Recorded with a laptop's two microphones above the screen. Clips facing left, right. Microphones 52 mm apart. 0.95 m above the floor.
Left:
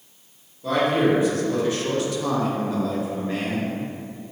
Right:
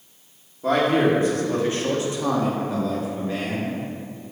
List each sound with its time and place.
0.6 s a man speaking: 45° right (ahead or behind), 1.7 m; by 3.8 s 25° left (ahead or behind), 1.3 m